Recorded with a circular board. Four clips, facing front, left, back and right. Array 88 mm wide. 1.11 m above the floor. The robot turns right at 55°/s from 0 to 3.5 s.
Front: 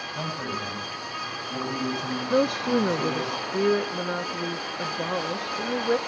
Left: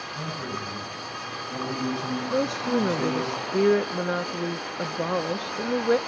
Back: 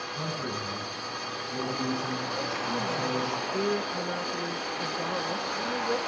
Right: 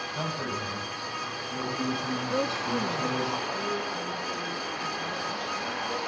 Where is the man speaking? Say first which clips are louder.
Right 1 dB, front 3 dB; 45° right, 6.5 m; by 3.3 s 130° left, 6.5 m.